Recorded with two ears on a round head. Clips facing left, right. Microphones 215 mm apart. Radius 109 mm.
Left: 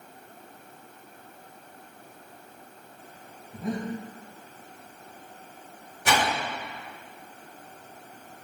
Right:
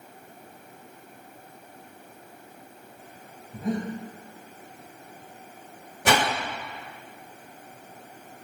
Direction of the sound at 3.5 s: Centre (ahead or behind).